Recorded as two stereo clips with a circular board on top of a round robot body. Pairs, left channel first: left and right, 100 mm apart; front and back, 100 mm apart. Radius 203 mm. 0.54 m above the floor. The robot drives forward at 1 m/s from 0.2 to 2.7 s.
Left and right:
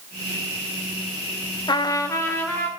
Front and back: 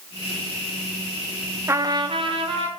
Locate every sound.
1.7 s a trumpet: 120° left, 0.7 m; by 2.7 s 165° left, 1.4 m